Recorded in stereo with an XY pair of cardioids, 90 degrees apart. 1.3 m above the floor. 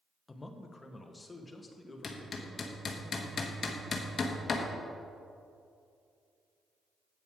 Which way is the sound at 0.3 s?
25° left.